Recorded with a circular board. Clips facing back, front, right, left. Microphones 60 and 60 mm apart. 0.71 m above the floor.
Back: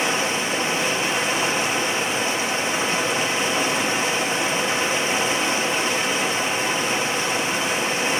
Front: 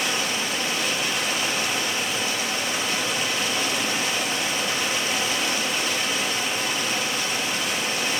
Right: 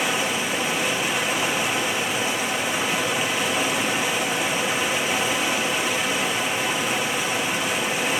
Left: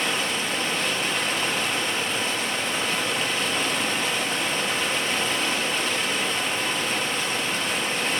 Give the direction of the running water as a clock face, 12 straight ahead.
5 o'clock.